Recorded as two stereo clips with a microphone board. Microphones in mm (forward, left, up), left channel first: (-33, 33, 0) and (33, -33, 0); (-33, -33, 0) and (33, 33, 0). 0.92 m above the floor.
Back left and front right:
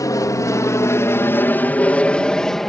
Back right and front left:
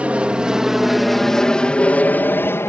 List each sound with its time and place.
0.0 s an aircraft: 115° left; by 2.7 s 140° right